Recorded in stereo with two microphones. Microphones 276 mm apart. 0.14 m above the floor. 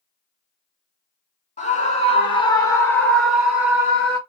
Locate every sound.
1.6 s a scream: 25° left (ahead or behind), 2 m; by 4.2 s 15° right (ahead or behind), 1.8 m